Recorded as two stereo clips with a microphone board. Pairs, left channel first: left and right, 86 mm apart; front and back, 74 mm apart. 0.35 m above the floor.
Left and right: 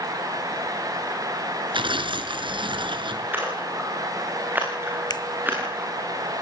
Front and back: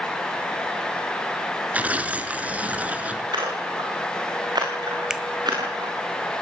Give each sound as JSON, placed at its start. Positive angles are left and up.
{"t": 1.7, "sound": "tearing paper", "azimuth_deg": -110, "distance_m": 2.0}
{"t": 3.3, "sound": "a splash", "azimuth_deg": -160, "distance_m": 6.5}
{"t": 5.1, "sound": "a finger snap", "azimuth_deg": 100, "distance_m": 1.6}